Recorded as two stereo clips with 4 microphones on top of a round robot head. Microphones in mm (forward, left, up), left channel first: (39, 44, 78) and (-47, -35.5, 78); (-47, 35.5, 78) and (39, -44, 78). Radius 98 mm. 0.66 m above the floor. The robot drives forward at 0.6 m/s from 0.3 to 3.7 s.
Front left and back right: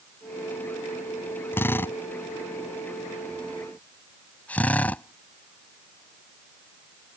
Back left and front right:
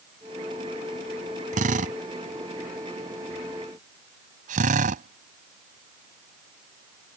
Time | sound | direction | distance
1.5 | a drill | 30° right | ?